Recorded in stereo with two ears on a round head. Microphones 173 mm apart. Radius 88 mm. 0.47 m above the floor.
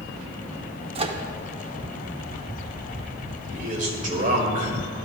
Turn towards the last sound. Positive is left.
turn(degrees=-40)  # may be behind; listen again after turning